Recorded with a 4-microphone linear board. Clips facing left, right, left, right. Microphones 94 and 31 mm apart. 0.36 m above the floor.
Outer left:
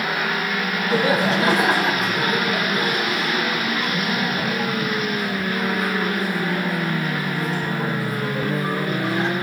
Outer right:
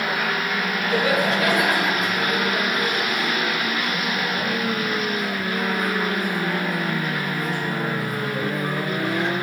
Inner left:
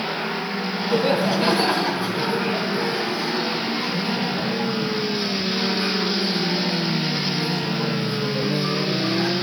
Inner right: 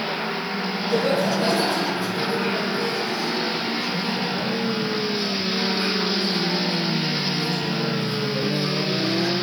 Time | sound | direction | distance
0.9 | laughter | 30° left (ahead or behind) | 2.5 m